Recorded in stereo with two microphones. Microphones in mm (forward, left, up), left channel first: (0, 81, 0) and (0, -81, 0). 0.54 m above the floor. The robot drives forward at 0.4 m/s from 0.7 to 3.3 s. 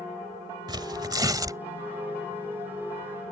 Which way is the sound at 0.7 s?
25° right (ahead or behind).